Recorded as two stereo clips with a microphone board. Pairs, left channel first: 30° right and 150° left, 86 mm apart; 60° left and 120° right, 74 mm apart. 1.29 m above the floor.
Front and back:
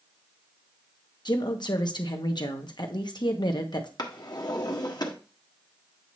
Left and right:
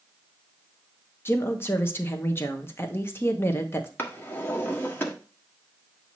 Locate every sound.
1.2 s a woman speaking: 5° left, 1.2 m
4.0 s a drawer: straight ahead, 1.3 m